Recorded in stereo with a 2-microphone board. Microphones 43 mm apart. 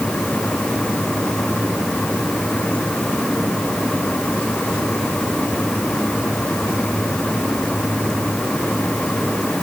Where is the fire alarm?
I don't hear a fire alarm.